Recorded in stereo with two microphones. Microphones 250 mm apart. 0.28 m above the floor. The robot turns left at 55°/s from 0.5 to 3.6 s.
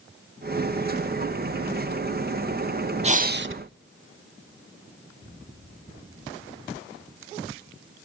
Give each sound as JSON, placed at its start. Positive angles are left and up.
{"t": 3.0, "sound": "breathing", "side_deg": -25, "distance_m": 0.6}